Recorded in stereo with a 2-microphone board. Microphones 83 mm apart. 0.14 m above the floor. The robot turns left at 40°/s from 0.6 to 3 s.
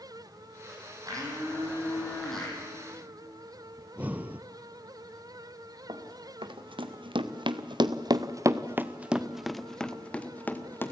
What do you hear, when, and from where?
1.1 s a blender: 135° right, 5.5 m; by 2.6 s 165° left, 5.5 m
3.8 s breathing: 20° right (ahead or behind), 0.6 m
5.9 s running footsteps: 85° right, 2 m; by 10.9 s 25° left (ahead or behind), 2.0 m